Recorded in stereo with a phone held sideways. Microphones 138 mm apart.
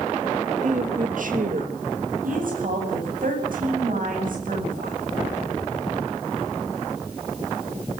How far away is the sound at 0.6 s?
About 3 m.